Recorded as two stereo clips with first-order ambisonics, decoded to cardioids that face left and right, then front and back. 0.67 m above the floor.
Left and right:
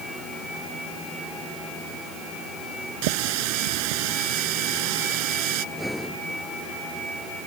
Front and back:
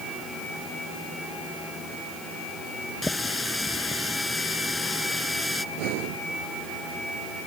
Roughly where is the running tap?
Right.